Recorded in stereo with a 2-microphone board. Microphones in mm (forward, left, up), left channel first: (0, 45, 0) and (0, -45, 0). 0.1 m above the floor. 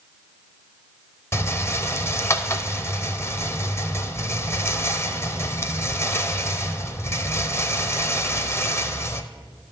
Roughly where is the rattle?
Left.